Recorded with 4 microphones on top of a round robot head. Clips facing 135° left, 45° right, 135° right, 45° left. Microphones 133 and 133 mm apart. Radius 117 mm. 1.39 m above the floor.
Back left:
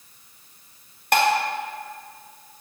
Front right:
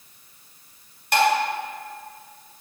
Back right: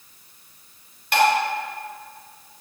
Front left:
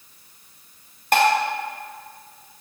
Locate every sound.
1.1 s dishes clattering: 95° left, 1.5 m